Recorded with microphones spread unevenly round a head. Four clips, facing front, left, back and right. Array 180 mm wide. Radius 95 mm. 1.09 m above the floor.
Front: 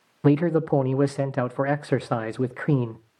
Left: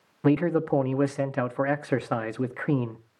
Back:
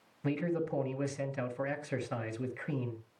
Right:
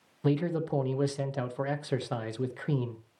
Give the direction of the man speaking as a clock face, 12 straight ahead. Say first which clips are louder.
Left 6 dB, front 13 dB; 11 o'clock.